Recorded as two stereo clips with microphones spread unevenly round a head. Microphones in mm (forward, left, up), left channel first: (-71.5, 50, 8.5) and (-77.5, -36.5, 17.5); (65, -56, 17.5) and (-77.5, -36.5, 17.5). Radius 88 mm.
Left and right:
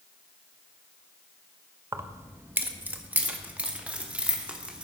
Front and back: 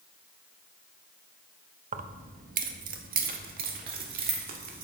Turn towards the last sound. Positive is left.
turn(degrees=-170)